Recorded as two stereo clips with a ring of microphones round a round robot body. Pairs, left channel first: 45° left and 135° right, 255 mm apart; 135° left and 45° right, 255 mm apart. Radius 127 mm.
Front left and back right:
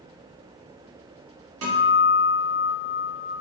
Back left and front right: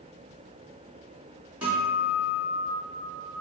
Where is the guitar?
130° right, 1.5 m.